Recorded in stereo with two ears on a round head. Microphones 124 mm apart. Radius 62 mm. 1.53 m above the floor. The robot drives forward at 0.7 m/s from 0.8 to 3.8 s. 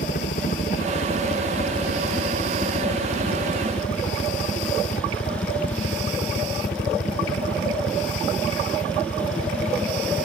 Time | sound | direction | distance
0.0 | a helicopter | 60° left (ahead or behind) | ?